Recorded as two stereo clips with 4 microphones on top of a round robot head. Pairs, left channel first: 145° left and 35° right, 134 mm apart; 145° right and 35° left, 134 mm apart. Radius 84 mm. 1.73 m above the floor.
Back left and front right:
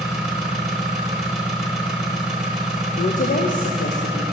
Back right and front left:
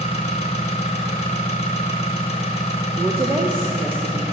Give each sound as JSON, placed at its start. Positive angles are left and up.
{"t": 0.0, "sound": "an engine running", "azimuth_deg": -120, "distance_m": 1.0}
{"t": 3.0, "sound": "a woman speaking", "azimuth_deg": 110, "distance_m": 0.9}